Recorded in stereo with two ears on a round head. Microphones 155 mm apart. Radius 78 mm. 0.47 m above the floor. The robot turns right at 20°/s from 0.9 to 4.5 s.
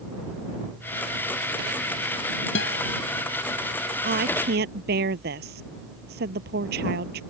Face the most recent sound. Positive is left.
turn(degrees=-65)  # may be behind; listen again after turning